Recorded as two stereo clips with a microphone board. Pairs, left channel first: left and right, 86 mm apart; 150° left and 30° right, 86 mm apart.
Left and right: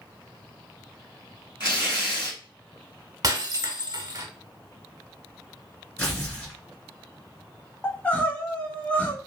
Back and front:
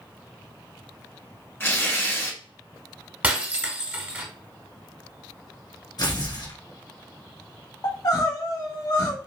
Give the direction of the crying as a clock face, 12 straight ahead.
7 o'clock.